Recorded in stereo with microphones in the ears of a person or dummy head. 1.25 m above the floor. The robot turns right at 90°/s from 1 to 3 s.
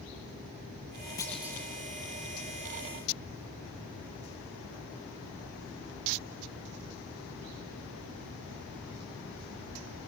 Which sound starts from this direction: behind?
A clunk, at 1.2 s.